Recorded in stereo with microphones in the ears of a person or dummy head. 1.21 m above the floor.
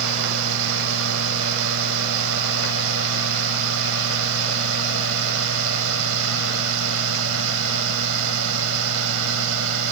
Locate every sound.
0.0 s a fan: 85° right